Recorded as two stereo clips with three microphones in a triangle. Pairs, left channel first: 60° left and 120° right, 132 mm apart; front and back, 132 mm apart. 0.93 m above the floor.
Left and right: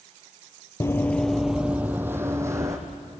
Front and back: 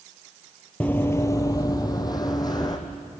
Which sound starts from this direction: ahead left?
Running footsteps, at 0.8 s.